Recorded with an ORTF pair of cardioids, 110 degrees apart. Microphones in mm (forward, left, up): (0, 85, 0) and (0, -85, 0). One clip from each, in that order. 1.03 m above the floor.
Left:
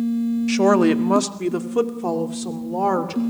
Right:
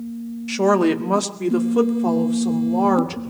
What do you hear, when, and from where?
0.5 s a woman speaking: 10° left, 1.4 m; by 3.2 s 5° right, 3 m